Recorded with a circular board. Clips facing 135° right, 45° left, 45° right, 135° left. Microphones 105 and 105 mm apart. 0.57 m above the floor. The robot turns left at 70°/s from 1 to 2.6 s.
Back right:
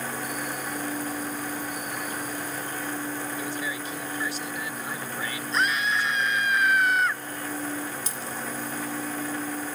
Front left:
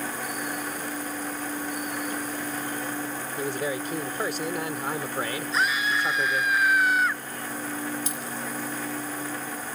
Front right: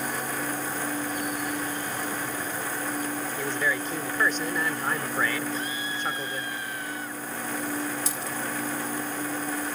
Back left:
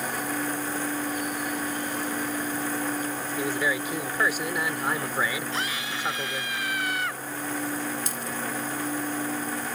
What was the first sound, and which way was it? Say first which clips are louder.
A man speaking: front left 3 dB, back left 3 dB; 60° left.